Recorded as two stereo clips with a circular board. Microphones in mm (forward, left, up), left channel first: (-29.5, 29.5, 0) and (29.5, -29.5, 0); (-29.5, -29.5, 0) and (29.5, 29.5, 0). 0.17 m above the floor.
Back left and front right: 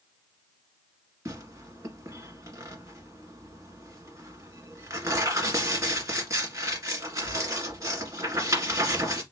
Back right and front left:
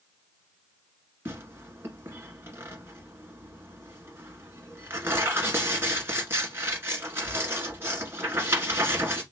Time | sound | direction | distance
1.2 | tearing paper | 10° right | 1.7 m